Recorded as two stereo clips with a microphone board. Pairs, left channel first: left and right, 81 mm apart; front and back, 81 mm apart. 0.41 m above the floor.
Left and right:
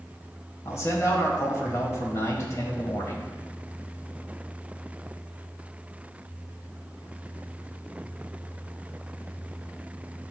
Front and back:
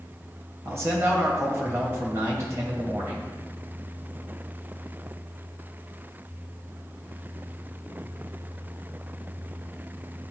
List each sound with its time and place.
0.7 s a man speaking: 135° left, 2 m